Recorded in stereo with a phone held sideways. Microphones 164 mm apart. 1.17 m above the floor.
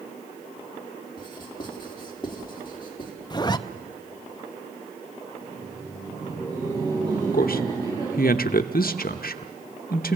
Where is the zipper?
30° left (ahead or behind), 0.6 m.